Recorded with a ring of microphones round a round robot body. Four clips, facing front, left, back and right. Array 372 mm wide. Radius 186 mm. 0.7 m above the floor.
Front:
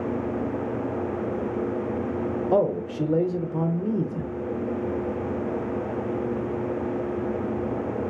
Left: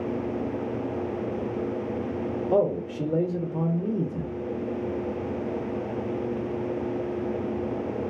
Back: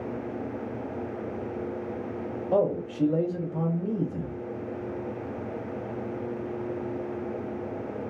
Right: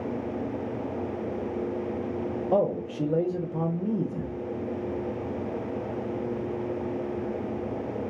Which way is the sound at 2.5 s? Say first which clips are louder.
Left 1 dB, front 1 dB; 5° left.